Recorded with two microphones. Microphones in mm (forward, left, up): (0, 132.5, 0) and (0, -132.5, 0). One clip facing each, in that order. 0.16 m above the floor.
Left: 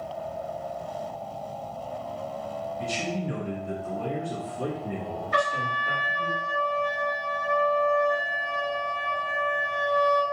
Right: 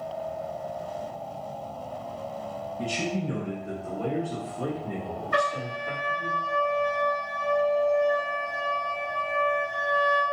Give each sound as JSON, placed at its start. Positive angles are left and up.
{"t": 2.8, "sound": "a man speaking", "side_deg": -40, "distance_m": 1.9}
{"t": 5.3, "sound": "a trumpet", "side_deg": -55, "distance_m": 1.2}